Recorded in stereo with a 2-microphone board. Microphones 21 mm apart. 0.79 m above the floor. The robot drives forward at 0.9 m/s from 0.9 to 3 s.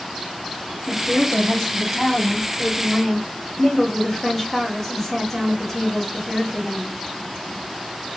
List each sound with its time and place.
0.9 s a woman speaking: centre (ahead or behind), 0.8 m